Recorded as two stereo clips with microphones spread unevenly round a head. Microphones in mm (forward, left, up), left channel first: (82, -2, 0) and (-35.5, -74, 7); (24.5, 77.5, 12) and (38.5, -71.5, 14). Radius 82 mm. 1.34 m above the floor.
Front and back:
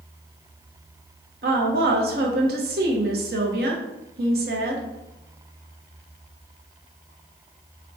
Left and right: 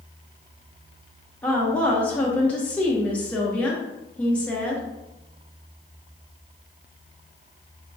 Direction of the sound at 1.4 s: 175° left.